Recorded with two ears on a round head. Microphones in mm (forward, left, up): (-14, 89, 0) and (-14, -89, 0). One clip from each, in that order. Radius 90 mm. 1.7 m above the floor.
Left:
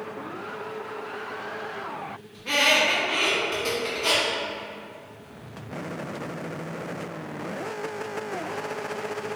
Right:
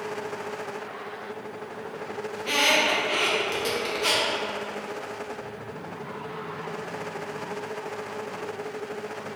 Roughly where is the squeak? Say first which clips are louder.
Left 1 dB; right.